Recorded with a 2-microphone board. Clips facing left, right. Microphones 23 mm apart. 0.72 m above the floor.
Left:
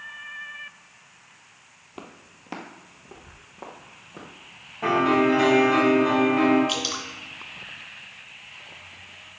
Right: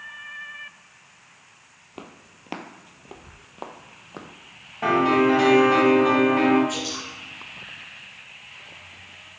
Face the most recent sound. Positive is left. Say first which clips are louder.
# left 2 dB
turn(degrees=65)  # may be behind; listen again after turning